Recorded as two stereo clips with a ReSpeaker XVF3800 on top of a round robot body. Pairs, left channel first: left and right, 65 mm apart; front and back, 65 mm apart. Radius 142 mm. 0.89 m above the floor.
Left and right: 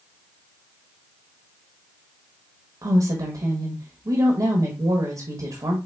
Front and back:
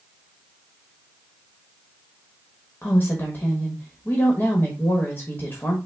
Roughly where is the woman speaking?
Ahead right.